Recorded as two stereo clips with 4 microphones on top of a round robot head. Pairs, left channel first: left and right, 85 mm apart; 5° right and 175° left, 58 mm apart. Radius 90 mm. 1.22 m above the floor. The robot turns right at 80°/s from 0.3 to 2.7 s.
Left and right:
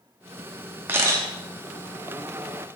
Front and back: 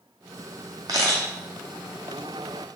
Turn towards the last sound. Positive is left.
turn(degrees=-5)